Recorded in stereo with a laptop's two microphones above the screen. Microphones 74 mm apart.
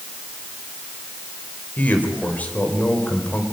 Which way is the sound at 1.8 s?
20° left (ahead or behind).